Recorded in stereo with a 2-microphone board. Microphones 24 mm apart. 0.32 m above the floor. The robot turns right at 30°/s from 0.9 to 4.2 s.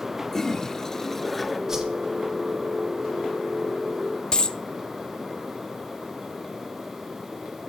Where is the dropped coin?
40° left (ahead or behind), 0.6 m.